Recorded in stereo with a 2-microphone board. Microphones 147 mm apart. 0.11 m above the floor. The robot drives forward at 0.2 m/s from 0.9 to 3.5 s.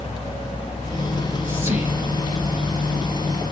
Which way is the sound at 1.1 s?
15° right (ahead or behind).